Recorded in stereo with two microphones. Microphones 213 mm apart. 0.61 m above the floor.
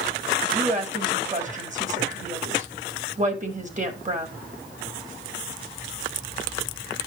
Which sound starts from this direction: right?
A woman speaking, at 0.5 s.